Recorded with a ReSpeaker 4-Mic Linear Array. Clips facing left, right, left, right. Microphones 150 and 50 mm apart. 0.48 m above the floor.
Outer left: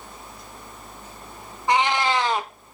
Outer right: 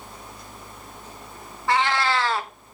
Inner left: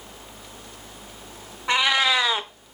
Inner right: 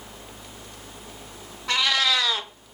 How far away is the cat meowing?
About 0.6 m.